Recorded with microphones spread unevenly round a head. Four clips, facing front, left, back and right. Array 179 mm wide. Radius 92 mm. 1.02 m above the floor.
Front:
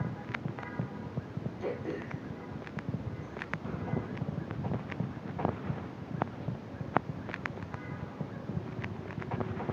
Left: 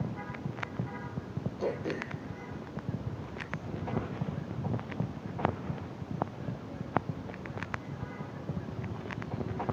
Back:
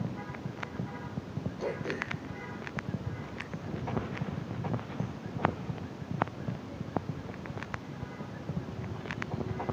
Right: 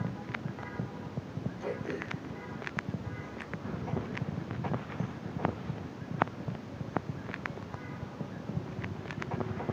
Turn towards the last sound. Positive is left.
turn(degrees=110)